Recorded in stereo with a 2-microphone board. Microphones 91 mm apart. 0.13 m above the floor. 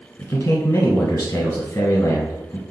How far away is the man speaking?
About 1.2 m.